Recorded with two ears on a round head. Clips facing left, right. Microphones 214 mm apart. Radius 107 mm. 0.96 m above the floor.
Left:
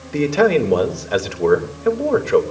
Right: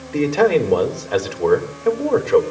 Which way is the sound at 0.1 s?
20° left (ahead or behind).